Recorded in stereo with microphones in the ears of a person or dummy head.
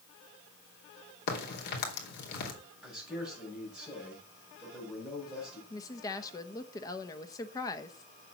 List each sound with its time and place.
1.3 s a crack: 55° left (ahead or behind), 3 m
2.8 s a man speaking: centre (ahead or behind), 8 m
5.7 s a woman speaking: 20° left (ahead or behind), 1.2 m